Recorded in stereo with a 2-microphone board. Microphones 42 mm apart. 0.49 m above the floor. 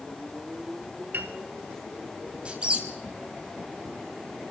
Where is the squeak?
25° right (ahead or behind), 1.8 m.